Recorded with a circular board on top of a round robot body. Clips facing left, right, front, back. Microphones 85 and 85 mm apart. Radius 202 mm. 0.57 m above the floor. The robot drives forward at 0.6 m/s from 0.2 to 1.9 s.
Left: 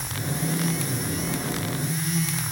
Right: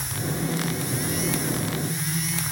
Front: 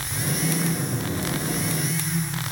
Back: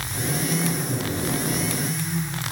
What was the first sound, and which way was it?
Only background noise.